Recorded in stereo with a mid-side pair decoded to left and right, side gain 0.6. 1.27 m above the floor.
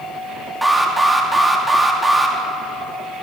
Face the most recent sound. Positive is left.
turn(degrees=-10)